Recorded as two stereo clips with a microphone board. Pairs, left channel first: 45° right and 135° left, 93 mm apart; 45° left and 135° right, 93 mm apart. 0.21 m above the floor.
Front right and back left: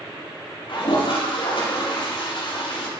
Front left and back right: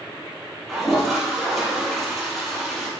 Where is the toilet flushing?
45° right, 6 m.